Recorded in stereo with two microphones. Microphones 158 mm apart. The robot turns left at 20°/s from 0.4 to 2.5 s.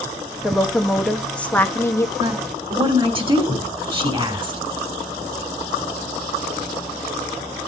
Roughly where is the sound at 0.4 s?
Behind.